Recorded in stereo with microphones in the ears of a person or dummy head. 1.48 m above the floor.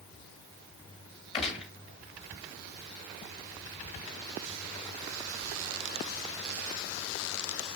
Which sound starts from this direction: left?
A gunshot, at 1.3 s.